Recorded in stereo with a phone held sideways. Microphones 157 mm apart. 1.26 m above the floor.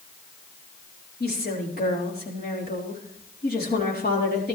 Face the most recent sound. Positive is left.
turn(degrees=80)